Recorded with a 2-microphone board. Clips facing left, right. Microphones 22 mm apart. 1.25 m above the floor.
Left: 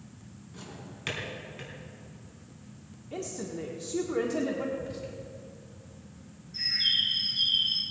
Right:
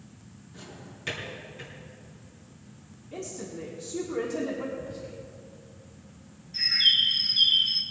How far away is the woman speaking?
About 1.4 m.